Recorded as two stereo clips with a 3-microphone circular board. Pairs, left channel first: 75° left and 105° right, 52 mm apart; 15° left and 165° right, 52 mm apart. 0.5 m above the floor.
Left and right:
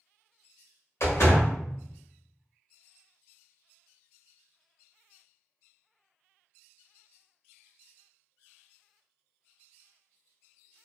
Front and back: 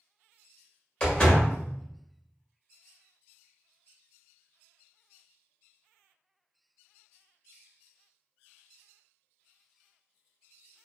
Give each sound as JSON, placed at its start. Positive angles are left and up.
{"t": 1.0, "sound": "a door slam", "azimuth_deg": 85, "distance_m": 1.2}